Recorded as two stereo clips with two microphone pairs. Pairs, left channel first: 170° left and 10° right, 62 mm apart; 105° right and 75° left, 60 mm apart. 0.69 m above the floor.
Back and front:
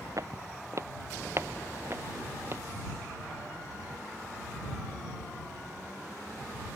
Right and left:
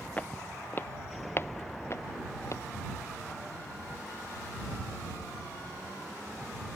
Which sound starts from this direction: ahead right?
Footsteps, at 0.2 s.